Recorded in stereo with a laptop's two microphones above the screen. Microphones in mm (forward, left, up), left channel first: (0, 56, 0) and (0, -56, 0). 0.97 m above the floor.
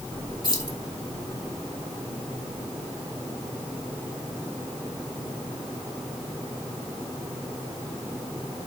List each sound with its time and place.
0.4 s keys jangling: 40° left (ahead or behind), 2.5 m